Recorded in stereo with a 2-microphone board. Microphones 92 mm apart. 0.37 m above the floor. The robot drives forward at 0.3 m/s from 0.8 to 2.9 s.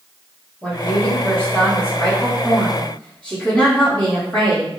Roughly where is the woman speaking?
Left.